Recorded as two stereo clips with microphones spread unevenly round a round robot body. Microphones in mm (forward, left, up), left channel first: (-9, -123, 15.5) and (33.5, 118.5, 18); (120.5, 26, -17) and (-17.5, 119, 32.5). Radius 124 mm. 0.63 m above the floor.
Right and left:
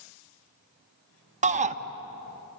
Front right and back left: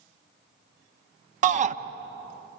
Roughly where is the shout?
Left.